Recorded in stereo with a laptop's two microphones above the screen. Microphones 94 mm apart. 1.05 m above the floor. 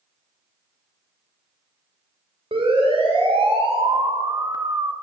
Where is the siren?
80° right, 3 m; by 4.9 s 30° right (ahead or behind), 1.4 m.